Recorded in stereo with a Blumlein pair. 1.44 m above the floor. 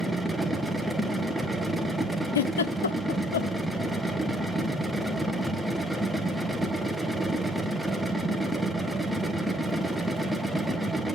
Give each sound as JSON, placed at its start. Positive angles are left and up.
{"t": 0.0, "sound": "a machine running", "azimuth_deg": 0, "distance_m": 0.9}
{"t": 2.4, "sound": "a giggle", "azimuth_deg": 65, "distance_m": 0.6}